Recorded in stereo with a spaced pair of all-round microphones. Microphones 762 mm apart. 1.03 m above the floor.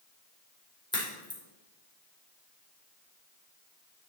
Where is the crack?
5° left (ahead or behind), 2.5 m.